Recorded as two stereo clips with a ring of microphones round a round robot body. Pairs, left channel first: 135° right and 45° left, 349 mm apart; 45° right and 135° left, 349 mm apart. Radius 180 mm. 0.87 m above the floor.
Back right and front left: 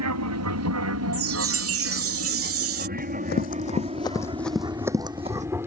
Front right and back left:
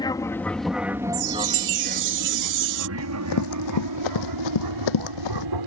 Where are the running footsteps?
75° right; by 5.5 s 25° right.